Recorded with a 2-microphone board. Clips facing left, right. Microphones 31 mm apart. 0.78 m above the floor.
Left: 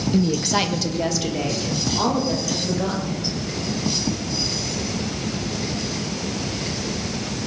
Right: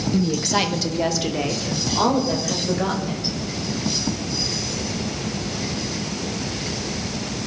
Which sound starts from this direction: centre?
A woman speaking, at 0.1 s.